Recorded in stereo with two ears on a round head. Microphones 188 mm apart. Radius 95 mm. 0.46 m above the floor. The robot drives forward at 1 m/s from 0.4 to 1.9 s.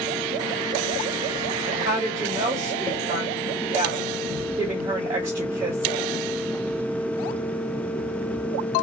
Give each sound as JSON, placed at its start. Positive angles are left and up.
{"t": 1.6, "sound": "a woman speaking", "side_deg": -15, "distance_m": 2.5}